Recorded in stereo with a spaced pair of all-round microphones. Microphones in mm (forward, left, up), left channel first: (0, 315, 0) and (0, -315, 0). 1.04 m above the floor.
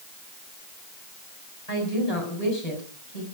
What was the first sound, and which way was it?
A woman speaking, 65° left (ahead or behind).